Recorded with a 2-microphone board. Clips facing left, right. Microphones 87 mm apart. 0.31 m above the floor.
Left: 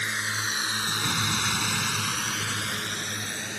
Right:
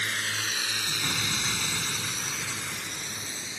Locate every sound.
0.0 s a drone: 15° left (ahead or behind); by 3.6 s 60° left (ahead or behind)
1.0 s an explosion: 10° left (ahead or behind)